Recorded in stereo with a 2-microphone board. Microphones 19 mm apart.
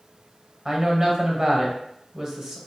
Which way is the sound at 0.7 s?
30° right (ahead or behind).